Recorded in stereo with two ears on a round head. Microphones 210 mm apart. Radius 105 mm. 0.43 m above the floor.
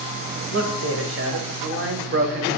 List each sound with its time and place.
0.5 s a man speaking: 65° right (ahead or behind), 2.5 m; by 2.6 s 40° right (ahead or behind), 1.4 m